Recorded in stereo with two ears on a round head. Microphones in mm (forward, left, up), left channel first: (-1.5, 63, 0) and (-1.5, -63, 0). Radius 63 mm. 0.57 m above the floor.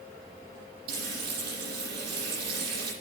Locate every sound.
0.9 s frying: 80° right, 8.5 m